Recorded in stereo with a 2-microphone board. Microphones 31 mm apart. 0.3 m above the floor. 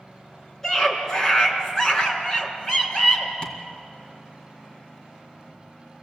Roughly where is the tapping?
Left.